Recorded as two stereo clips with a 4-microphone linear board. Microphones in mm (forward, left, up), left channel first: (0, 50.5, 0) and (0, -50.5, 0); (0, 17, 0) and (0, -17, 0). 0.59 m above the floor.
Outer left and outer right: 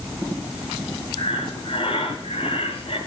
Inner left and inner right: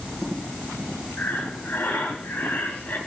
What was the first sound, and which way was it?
Breathing, 70° left (ahead or behind).